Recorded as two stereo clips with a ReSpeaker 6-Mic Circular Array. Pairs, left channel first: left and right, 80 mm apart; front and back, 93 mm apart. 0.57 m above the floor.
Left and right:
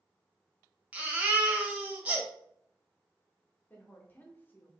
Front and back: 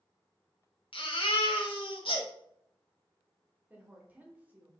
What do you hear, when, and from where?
0.9 s a baby crying: 15° right, 0.8 m
3.7 s a woman speaking: 130° left, 0.9 m